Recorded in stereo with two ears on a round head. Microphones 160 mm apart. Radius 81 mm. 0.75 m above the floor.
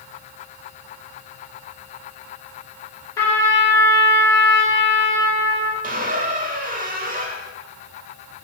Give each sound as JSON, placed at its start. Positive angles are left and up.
{"t": 3.2, "sound": "a trumpet", "side_deg": 20, "distance_m": 3.5}
{"t": 5.8, "sound": "a squeak", "side_deg": -50, "distance_m": 1.1}